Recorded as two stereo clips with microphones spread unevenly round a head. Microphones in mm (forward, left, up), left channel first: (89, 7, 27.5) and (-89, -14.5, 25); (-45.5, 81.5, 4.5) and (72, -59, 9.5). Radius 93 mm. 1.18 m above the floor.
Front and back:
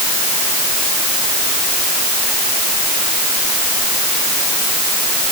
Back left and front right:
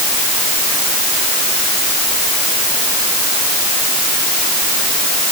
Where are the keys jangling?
No keys jangling in this recording.